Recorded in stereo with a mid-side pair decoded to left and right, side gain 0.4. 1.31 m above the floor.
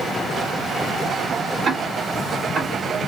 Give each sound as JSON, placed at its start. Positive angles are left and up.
{"t": 1.6, "sound": "ticking", "azimuth_deg": -55, "distance_m": 2.0}